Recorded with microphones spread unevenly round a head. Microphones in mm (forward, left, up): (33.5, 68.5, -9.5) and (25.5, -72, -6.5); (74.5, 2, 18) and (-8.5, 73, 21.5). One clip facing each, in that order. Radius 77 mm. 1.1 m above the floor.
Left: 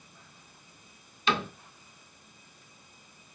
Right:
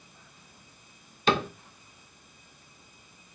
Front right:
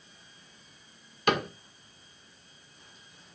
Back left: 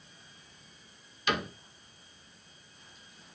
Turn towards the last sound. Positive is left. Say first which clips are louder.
# right 4 dB, front right 5 dB
turn(degrees=-55)